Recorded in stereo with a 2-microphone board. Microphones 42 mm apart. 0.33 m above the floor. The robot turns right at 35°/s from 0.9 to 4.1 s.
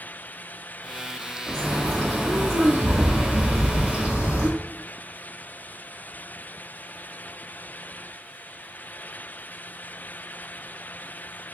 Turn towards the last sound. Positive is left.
turn(degrees=-35)